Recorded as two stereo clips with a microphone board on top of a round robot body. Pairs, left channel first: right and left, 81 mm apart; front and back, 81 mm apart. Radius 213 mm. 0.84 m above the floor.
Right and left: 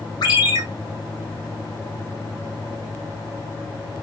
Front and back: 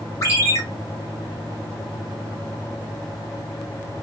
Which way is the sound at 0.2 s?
50° right.